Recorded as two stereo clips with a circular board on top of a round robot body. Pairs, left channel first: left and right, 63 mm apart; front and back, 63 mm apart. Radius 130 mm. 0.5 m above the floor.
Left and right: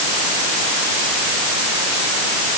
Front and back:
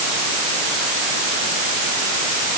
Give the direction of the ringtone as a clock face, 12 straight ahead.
I don't hear a ringtone.